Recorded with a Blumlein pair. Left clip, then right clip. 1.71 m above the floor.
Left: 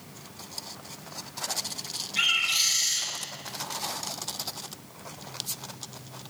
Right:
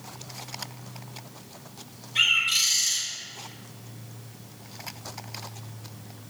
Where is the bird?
70° right, 4 m.